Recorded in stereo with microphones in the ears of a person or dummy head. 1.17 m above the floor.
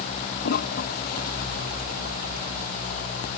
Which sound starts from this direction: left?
A toilet flushing, at 0.4 s.